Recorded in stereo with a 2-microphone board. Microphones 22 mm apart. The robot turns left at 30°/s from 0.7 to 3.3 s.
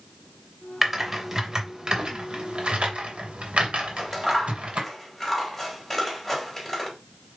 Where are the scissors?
5° left (ahead or behind), 3.5 m.